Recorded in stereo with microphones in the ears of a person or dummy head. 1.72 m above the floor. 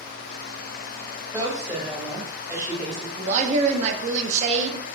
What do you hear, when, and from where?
1.3 s a woman speaking: 20° right (ahead or behind), 1.6 m
3.2 s a woman speaking: 40° right (ahead or behind), 0.5 m